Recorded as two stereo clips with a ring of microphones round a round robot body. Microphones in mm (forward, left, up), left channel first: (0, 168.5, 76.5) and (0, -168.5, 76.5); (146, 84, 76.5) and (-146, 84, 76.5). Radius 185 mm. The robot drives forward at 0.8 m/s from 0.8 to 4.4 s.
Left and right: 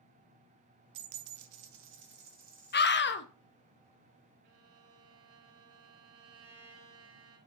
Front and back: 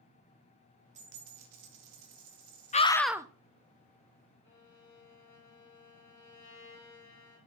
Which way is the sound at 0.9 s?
110° right.